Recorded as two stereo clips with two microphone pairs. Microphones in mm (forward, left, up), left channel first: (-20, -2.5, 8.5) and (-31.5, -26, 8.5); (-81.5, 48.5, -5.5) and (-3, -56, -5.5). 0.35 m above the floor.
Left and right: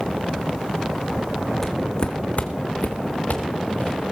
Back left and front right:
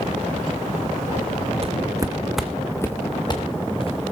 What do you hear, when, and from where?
1.6 s footsteps: 10° right, 1.5 m; by 4.1 s 85° left, 3.5 m